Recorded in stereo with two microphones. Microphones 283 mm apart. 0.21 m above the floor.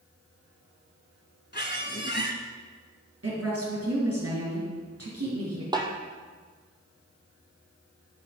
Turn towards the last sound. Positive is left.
turn(degrees=-15)  # may be behind; listen again after turning